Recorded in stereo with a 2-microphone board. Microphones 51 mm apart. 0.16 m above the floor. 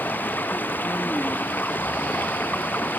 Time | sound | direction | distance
0.0 | running water | 40° left (ahead or behind) | ?